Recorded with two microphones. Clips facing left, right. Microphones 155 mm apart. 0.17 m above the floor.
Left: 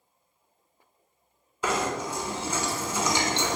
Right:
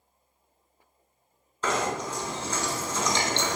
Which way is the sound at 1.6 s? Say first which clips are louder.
Even; 10° left (ahead or behind).